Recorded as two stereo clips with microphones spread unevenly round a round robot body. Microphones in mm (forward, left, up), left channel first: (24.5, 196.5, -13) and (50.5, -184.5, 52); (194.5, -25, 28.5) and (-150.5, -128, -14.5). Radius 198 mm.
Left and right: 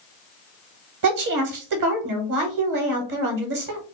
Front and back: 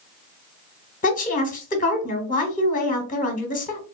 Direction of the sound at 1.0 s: 55° right.